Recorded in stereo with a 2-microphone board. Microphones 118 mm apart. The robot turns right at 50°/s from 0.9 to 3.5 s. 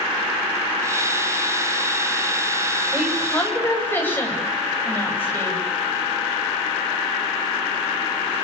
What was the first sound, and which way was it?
A woman speaking, 10° right (ahead or behind).